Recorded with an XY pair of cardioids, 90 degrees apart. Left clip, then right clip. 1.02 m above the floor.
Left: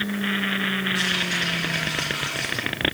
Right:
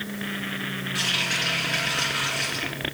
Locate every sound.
0.9 s a running tap: 40° right, 10 m